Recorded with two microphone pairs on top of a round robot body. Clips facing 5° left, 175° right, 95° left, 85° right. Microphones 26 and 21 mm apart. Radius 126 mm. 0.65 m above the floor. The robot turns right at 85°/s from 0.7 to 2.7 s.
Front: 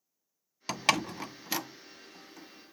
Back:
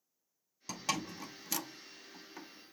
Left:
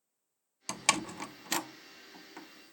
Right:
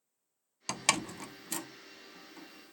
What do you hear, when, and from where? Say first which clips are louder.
0.7 s a door slam: front 9 dB, left 1 dB; 15° right, 0.5 m; by 2.7 s 155° left, 0.5 m